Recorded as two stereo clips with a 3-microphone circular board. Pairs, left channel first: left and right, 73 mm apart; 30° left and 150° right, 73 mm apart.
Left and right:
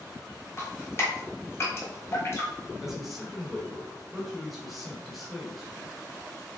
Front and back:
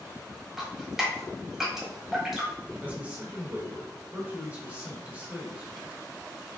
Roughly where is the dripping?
Behind left.